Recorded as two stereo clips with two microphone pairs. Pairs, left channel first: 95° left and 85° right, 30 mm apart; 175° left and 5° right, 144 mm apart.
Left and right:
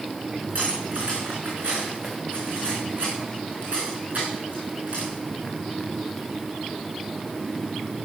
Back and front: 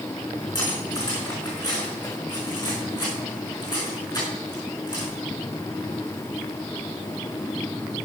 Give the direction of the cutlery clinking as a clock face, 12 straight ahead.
4 o'clock.